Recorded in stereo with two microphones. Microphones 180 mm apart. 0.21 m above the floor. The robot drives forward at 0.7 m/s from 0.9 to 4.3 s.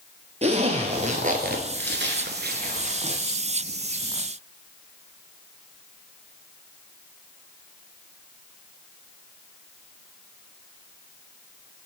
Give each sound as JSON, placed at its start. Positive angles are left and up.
{"t": 0.4, "sound": "a zipper", "side_deg": -40, "distance_m": 1.0}